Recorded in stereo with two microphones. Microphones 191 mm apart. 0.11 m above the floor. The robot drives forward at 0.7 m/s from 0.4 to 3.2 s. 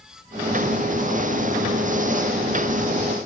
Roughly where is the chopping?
I don't hear chopping.